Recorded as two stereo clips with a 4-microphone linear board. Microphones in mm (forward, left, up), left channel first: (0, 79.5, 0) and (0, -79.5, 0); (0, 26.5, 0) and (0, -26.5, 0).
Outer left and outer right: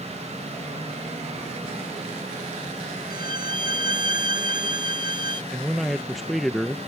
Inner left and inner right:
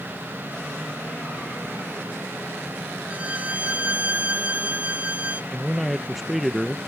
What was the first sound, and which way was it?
A violin, 25° right (ahead or behind).